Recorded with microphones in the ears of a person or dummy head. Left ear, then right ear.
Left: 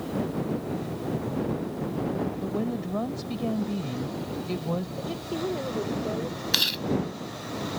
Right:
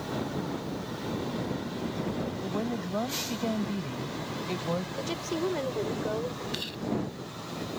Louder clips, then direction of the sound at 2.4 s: Left 2 dB; 20° right (ahead or behind).